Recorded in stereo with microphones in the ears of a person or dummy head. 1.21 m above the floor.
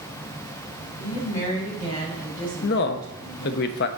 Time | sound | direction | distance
1.0 | a woman speaking | 50° left (ahead or behind) | 2.5 m
2.6 | a man speaking | 60° left (ahead or behind) | 0.7 m